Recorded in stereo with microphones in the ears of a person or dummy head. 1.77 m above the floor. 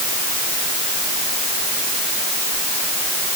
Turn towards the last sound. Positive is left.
No sound to turn to.